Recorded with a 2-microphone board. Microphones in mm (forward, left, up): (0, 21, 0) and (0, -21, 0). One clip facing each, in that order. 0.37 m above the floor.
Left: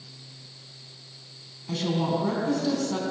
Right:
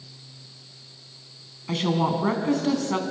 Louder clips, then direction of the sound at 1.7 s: Right 3 dB; 55° right (ahead or behind).